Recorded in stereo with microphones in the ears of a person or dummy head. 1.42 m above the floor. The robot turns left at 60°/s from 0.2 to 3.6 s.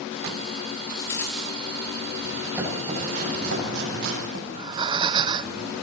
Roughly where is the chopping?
Centre.